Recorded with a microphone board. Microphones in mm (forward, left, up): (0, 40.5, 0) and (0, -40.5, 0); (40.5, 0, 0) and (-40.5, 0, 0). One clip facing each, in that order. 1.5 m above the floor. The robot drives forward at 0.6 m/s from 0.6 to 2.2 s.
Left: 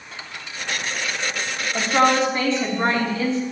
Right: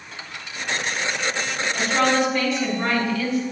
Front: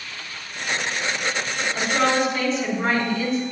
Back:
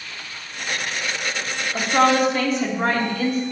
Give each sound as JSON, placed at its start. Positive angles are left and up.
{"t": 1.7, "sound": "a woman speaking", "azimuth_deg": 145, "distance_m": 3.5}